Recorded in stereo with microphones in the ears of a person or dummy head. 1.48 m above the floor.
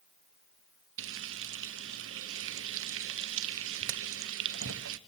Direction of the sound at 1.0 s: 75° right (ahead or behind).